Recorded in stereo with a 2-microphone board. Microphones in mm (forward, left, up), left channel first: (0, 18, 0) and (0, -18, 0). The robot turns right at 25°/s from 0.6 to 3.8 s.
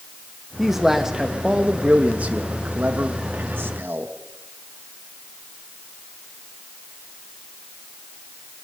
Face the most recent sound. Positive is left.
turn(degrees=-95)